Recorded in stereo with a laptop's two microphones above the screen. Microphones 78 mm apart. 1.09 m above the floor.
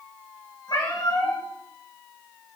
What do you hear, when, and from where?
0.7 s a cat meowing: 65° left (ahead or behind), 4 m